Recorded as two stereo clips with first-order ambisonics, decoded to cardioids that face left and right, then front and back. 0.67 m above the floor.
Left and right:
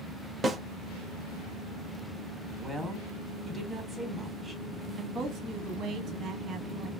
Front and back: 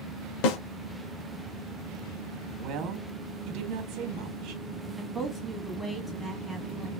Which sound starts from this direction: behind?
A woman speaking, at 2.6 s.